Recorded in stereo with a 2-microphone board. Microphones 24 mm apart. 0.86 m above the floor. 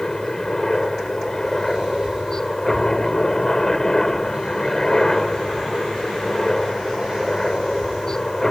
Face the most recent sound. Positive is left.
turn(degrees=25)  # may be behind; listen again after turning